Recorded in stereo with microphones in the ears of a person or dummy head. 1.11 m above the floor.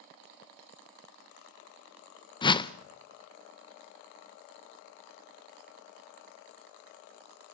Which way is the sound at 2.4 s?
25° left (ahead or behind).